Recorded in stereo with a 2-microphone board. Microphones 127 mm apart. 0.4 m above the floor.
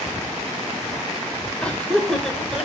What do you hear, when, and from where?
1.6 s laughter: 10° left (ahead or behind), 1.1 m; by 2.7 s 5° right (ahead or behind), 1.5 m